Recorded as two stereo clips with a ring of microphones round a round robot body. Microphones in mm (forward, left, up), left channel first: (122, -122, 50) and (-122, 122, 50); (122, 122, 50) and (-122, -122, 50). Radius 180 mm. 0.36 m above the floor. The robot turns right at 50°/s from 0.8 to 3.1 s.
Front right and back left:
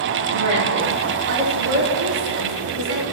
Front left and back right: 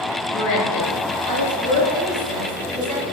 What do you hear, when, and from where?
0.3 s a woman speaking: 75° left, 4.5 m; by 3.0 s 170° right, 4.5 m